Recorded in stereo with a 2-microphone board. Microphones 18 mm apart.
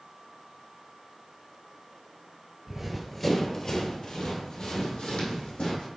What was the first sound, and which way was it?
Running footsteps, 15° right (ahead or behind).